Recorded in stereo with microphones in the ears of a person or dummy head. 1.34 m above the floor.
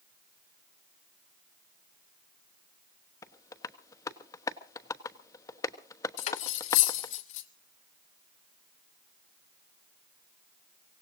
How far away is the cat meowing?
I don't hear a cat meowing.